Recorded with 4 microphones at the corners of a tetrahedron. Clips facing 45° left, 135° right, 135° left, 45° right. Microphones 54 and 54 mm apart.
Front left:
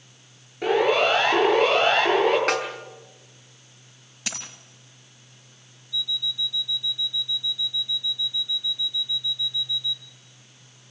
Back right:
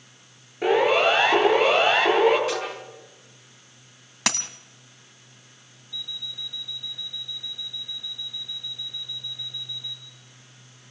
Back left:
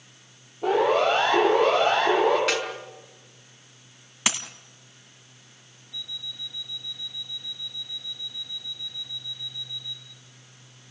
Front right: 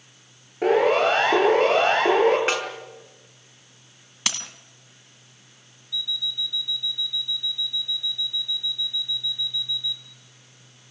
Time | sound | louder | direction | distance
0.6 | a siren | back right 1 dB, front right 2 dB | 55° right | 9 m
2.5 | a snare drum | front left 4 dB, front right 1 dB | 15° left | 5.5 m
4.3 | a dropped coin | back right 8 dB, back left 3 dB | 150° right | 2 m
5.9 | an alarm clock | front left 7 dB, front right 8 dB | straight behind | 1.6 m